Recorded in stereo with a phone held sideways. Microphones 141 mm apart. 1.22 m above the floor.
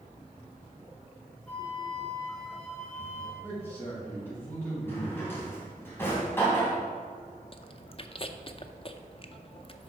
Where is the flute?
10° left (ahead or behind), 2.5 m.